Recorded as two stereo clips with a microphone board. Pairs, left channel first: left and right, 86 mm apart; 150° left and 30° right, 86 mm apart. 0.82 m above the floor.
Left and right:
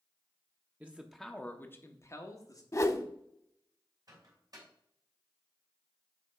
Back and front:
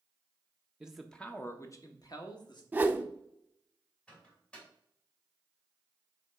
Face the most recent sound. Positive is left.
turn(degrees=-130)